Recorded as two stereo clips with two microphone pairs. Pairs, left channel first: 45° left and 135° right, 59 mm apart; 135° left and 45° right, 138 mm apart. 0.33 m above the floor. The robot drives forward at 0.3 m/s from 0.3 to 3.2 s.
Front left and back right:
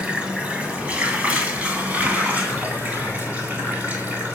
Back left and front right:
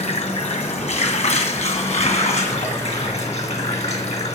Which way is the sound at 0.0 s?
155° left.